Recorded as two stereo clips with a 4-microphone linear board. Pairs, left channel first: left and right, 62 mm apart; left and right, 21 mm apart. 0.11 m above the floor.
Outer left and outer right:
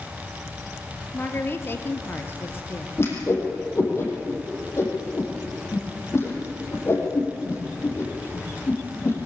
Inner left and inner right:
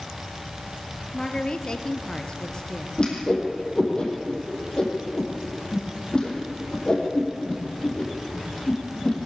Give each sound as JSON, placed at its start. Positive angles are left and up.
{"t": 1.1, "sound": "a woman speaking", "side_deg": 40, "distance_m": 2.0}
{"t": 3.0, "sound": "a whoosh", "side_deg": 45, "distance_m": 5.0}